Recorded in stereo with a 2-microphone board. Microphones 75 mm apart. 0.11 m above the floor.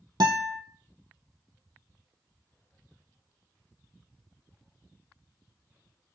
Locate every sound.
0.2 s a guitar: 70° right (ahead or behind), 0.7 m